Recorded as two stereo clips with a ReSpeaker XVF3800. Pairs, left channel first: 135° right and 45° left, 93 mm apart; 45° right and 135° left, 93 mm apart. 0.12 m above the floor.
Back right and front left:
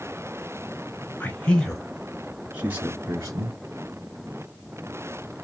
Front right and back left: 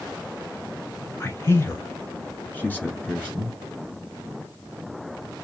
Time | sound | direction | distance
1.2 | a man speaking | 80° right | 1.5 m